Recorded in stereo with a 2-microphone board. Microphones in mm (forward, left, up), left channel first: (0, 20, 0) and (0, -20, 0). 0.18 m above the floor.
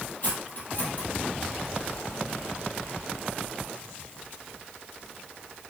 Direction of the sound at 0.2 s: 40° left (ahead or behind).